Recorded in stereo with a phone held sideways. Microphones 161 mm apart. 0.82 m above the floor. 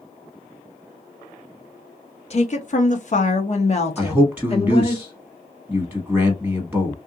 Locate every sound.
2.3 s a woman speaking: 45° left (ahead or behind), 0.7 m; by 5.0 s 35° left (ahead or behind), 1.7 m
4.0 s a man speaking: 10° right (ahead or behind), 1.1 m